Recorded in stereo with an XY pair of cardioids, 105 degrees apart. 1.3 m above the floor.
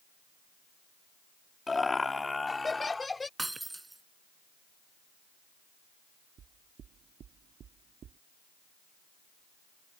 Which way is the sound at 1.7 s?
25° left.